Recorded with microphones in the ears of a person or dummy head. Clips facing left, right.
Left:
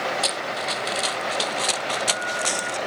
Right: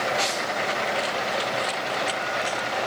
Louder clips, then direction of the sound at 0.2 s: Right 1 dB; 60° left (ahead or behind).